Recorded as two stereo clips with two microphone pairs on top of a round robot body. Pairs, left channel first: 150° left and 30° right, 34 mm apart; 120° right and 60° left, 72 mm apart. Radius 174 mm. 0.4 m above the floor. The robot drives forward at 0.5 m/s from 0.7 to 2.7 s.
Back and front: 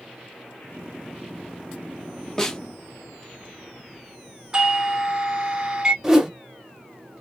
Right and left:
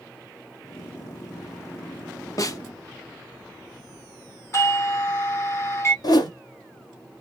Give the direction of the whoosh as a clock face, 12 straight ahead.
4 o'clock.